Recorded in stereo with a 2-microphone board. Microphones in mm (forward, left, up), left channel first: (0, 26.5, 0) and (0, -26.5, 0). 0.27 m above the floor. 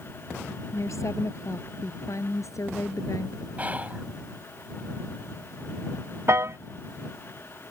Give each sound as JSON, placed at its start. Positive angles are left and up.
{"t": 0.7, "sound": "a woman speaking", "side_deg": 70}
{"t": 3.6, "sound": "whispering", "side_deg": -30}
{"t": 6.3, "sound": "a piano", "side_deg": -60}